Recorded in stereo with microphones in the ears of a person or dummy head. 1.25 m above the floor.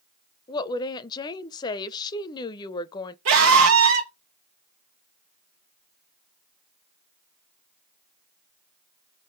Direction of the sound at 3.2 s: 75° right (ahead or behind).